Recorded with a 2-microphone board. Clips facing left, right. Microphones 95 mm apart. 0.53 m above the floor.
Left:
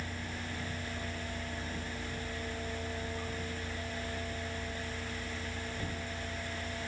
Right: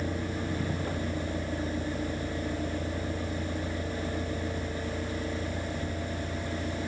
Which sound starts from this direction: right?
A vehicle, at 0.0 s.